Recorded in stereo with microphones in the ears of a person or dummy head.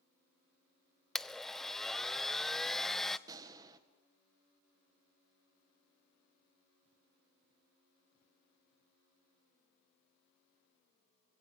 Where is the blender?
5° left (ahead or behind), 0.5 m.